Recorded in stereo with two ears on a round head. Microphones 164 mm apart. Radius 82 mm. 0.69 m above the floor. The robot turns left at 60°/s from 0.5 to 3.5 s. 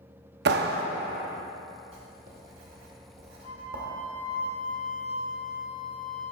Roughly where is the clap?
Right.